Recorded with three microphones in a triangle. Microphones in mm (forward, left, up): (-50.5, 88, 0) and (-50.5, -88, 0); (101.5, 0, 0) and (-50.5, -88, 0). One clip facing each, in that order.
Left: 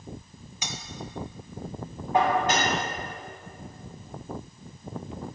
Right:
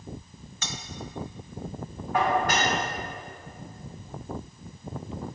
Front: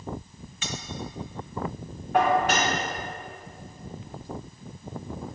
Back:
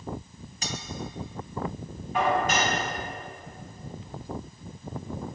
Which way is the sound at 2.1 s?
25° left.